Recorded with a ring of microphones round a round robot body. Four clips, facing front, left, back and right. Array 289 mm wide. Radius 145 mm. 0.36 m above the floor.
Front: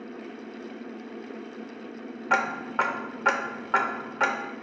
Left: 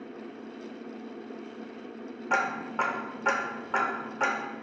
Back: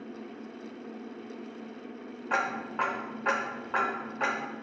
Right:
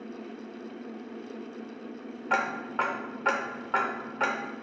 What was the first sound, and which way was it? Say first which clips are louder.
Ticking: even, front 5 dB; 10° right.